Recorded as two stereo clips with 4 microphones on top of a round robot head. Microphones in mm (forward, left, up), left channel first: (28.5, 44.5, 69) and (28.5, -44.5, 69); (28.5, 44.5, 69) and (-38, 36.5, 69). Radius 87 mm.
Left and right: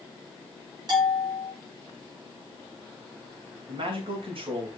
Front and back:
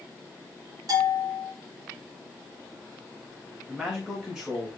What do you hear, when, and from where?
0.9 s a bell: 135° right, 3 m
3.7 s a man speaking: 95° right, 3 m